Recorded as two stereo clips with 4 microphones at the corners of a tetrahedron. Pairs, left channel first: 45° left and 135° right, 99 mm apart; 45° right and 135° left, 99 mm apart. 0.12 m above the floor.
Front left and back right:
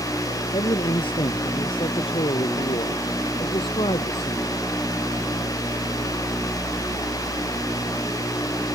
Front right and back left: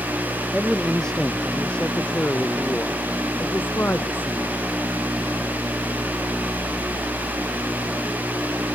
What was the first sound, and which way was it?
A man speaking, 40° left.